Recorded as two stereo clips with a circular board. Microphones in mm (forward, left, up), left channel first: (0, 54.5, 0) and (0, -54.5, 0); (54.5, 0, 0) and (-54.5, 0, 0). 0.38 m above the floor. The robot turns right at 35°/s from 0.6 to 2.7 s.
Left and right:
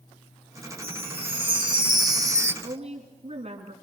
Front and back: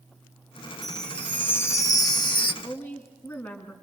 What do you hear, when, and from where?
0.8 s a chime: 90° right, 0.7 m; by 2.5 s 30° right, 0.7 m
2.6 s a woman speaking: 75° right, 3 m